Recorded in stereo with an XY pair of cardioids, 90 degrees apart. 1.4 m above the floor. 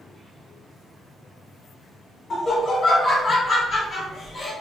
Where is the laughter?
55° left, 1.3 m.